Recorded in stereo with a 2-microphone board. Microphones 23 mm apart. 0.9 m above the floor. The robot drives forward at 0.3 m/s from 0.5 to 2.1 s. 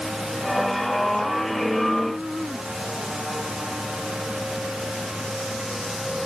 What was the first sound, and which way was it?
Only background noise.